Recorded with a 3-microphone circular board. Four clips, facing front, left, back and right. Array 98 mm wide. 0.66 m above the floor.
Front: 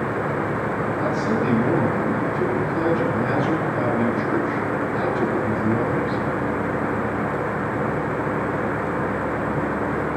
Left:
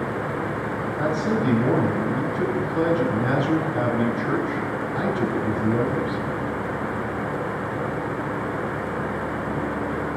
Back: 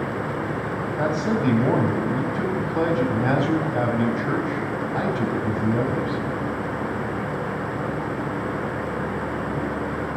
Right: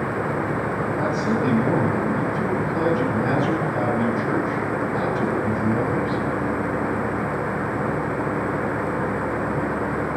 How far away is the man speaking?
About 4 m.